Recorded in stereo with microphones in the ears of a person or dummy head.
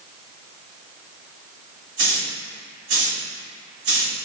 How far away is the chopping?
I don't hear chopping.